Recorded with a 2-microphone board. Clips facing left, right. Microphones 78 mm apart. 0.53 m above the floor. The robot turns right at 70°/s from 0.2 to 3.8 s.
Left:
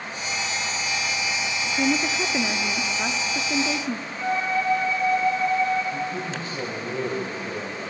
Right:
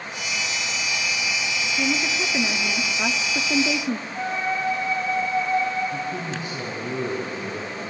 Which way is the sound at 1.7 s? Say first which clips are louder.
Left 3 dB; 20° left (ahead or behind).